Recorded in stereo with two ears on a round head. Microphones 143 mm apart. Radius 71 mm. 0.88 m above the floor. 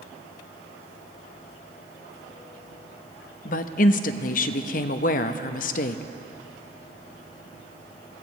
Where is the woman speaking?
55° left (ahead or behind), 0.6 m.